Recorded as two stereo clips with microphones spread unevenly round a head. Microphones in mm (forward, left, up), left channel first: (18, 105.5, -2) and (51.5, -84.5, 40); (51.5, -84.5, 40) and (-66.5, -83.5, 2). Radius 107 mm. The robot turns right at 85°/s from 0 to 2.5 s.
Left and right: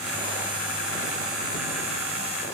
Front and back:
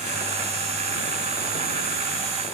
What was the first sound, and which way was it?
Only background noise.